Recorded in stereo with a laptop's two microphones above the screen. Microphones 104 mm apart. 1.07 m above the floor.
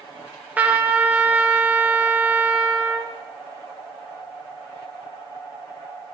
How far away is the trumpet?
About 0.6 m.